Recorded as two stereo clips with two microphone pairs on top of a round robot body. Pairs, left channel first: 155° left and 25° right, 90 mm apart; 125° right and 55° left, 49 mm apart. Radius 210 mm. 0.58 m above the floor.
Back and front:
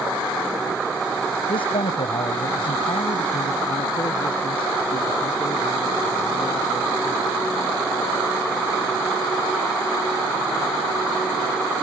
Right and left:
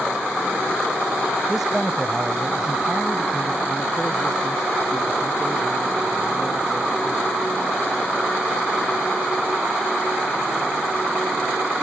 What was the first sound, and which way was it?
A man speaking, 140° left.